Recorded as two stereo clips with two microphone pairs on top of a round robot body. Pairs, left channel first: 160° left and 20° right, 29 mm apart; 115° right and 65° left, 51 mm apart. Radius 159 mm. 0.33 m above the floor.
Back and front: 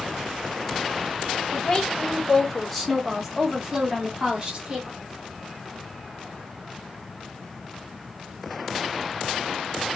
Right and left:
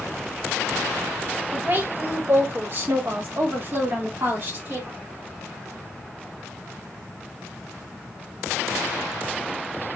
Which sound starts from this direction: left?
A woman speaking, at 1.5 s.